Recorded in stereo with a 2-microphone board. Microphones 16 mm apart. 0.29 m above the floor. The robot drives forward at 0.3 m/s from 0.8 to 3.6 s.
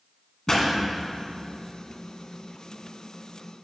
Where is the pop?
45° left (ahead or behind), 1.7 m.